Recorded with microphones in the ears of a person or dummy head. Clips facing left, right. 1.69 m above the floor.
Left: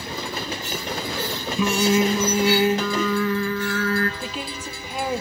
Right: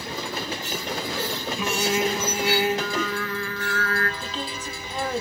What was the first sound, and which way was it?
Singing, 70° left (ahead or behind).